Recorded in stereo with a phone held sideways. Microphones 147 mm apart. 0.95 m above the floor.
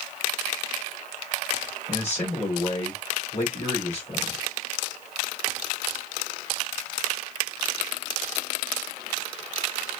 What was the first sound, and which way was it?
A man speaking, 50° left (ahead or behind).